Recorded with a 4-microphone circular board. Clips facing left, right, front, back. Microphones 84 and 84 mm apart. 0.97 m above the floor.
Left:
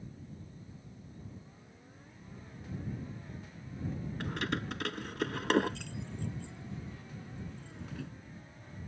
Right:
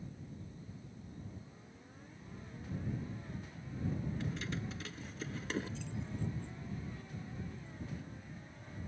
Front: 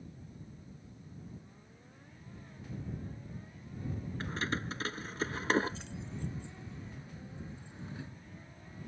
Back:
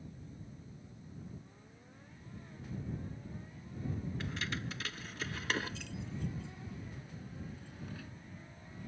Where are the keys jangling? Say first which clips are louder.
Left 5 dB, front 4 dB; 55° left; by 8.1 s 70° left.